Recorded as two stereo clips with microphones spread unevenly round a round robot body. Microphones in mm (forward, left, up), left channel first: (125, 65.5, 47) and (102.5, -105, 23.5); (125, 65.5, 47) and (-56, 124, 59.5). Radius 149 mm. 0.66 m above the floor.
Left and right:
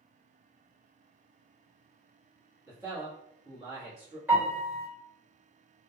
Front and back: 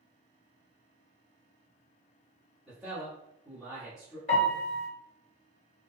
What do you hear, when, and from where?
2.7 s a man speaking: 105° right, 1.0 m
4.3 s a piano: 30° right, 1.7 m